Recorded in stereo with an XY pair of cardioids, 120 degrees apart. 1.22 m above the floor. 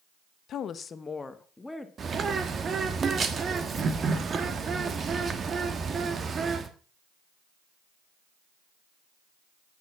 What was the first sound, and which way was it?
A woman speaking, 60° left.